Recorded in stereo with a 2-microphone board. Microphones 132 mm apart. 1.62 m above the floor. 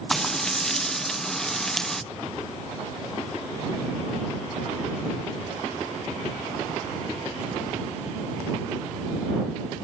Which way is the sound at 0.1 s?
5° left (ahead or behind).